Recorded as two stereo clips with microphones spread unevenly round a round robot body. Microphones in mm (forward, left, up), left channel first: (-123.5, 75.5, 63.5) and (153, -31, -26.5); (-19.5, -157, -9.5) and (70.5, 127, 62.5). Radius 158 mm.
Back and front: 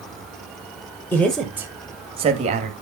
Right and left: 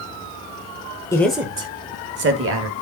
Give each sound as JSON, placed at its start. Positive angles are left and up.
{"t": 1.1, "sound": "a man speaking", "azimuth_deg": -90, "distance_m": 0.9}